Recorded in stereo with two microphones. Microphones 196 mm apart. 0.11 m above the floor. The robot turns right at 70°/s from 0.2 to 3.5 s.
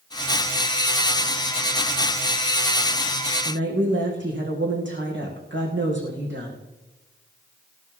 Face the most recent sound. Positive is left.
turn(degrees=-75)  # may be behind; listen again after turning